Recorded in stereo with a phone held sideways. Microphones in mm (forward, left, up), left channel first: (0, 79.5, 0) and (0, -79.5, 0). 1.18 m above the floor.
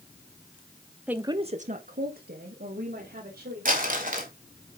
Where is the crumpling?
60° right (ahead or behind), 2.5 m.